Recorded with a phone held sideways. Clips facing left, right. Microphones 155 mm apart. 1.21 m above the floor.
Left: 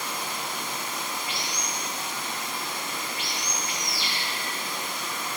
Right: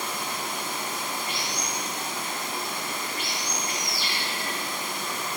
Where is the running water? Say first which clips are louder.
Right 1 dB; 50° right (ahead or behind), 1.2 m.